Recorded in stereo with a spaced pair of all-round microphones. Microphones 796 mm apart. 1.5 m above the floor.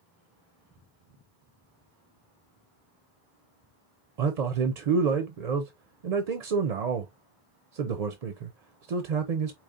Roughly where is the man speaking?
Right.